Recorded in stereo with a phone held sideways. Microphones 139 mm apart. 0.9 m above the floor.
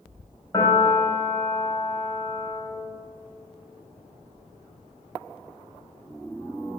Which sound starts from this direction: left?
A piano, at 0.5 s.